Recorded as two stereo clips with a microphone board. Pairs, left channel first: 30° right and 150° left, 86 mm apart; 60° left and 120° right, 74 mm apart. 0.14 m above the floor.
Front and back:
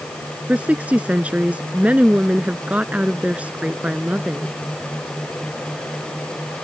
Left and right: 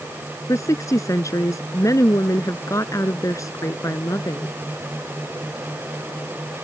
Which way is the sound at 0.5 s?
80° left.